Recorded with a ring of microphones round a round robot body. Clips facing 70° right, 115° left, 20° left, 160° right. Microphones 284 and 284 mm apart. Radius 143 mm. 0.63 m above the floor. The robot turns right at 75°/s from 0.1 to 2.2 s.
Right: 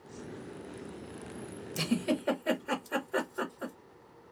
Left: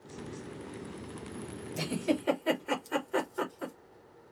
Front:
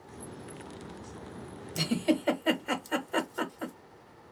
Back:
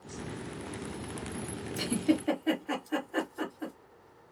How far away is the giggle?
About 1.0 m.